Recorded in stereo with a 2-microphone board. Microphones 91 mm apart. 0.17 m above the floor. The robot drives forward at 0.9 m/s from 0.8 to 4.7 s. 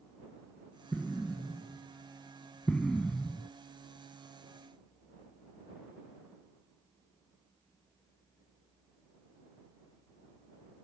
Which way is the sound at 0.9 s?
5° left (ahead or behind).